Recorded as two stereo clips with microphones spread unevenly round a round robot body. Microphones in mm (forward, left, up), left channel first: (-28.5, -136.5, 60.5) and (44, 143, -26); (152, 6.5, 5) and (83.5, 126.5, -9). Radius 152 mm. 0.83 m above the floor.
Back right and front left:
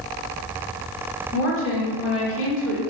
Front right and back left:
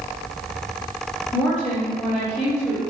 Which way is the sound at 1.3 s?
145° right.